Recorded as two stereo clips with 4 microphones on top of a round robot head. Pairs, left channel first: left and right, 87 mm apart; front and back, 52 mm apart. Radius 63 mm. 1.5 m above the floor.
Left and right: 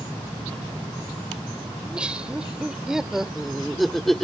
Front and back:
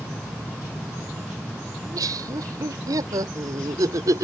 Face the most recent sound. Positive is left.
turn(degrees=175)